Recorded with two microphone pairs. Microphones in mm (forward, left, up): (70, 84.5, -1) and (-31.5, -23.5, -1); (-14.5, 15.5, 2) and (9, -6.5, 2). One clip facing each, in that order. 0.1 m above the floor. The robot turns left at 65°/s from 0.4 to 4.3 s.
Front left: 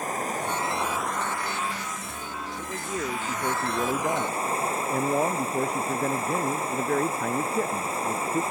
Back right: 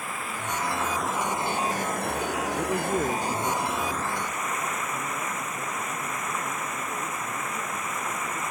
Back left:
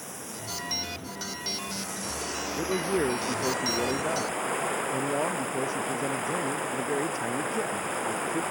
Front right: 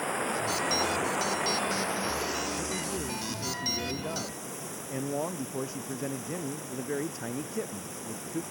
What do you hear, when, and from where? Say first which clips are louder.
0.0 s running water: front left 5 dB, front right 10 dB; straight ahead; by 8.5 s 105° left
2.6 s a man speaking: back right 6 dB, back left 7 dB; 175° left; by 8.4 s 60° left